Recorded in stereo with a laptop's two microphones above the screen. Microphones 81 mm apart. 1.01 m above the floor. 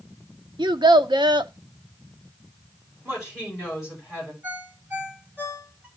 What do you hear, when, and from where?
0.6 s a child speaking: 70° right (ahead or behind), 0.7 m
3.0 s a woman speaking: 10° right (ahead or behind), 7 m
4.4 s a ringtone: 20° right (ahead or behind), 3.5 m